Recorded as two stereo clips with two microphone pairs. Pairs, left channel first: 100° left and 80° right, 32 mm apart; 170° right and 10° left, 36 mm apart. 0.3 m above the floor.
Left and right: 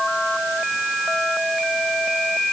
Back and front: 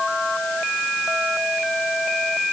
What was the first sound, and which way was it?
Only background noise.